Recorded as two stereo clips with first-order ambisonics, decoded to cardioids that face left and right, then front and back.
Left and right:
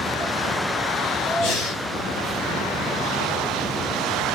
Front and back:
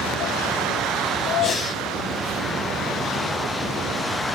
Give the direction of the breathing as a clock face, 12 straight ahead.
10 o'clock.